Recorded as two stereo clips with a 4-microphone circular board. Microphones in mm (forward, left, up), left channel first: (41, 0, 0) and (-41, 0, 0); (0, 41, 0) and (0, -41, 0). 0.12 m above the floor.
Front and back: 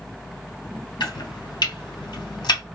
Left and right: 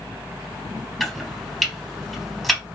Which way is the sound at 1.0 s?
Straight ahead.